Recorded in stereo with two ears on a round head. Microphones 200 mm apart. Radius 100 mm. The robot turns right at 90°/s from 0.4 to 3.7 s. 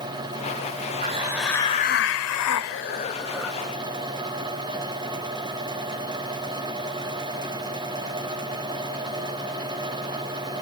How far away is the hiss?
About 0.7 m.